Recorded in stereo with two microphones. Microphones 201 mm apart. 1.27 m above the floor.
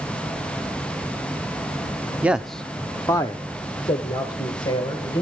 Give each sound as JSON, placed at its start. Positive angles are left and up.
{"t": 2.2, "sound": "a man speaking", "side_deg": -5, "distance_m": 0.5}